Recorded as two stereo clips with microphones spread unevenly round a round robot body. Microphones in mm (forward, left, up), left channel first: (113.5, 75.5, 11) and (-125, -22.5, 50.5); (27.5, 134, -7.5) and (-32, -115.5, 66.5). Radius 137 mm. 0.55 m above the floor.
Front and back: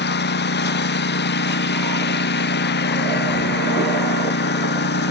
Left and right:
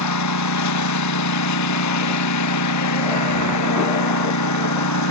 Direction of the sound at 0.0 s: 70° left.